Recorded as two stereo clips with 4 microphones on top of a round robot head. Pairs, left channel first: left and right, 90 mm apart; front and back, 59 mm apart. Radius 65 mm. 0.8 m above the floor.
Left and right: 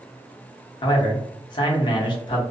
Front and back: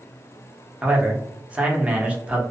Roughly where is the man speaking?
Behind left.